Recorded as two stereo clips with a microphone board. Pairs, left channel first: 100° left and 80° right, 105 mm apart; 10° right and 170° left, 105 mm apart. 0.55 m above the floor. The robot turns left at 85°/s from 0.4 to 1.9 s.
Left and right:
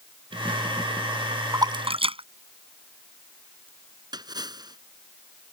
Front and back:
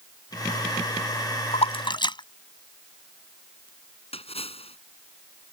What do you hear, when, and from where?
1.5 s a splash: 20° right; by 3.7 s 50° right
4.1 s a splash: 30° right